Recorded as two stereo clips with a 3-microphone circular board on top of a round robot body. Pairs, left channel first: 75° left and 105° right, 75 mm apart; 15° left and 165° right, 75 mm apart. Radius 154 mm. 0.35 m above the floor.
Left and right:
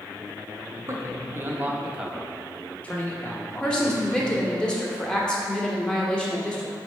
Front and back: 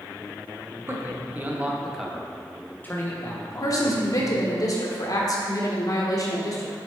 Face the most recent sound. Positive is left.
turn(degrees=0)